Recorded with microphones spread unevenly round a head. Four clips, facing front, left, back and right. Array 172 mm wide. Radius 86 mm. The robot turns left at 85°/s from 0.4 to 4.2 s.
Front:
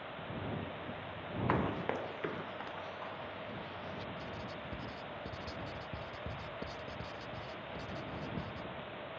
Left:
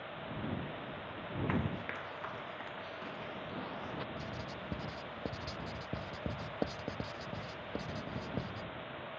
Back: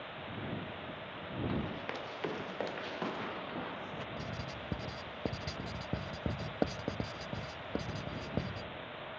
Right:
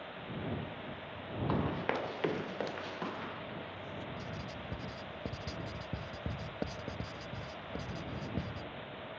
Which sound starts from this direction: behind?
Writing, at 4.2 s.